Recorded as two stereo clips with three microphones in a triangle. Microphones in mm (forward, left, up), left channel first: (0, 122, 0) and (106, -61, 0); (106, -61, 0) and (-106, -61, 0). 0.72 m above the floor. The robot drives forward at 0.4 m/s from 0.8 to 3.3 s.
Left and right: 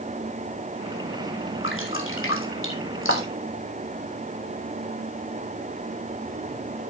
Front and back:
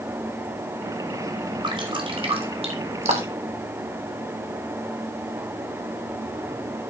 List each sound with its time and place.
1.6 s dripping: 115° left, 3 m; by 3.5 s 125° left, 3 m